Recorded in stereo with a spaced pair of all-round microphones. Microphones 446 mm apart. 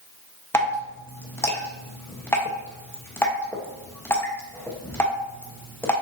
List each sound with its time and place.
0.5 s dripping: 5° left (ahead or behind), 1.1 m